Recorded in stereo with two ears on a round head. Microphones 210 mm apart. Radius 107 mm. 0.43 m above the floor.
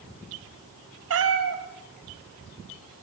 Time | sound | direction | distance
1.1 | a cat meowing | 65° right (ahead or behind) | 2 m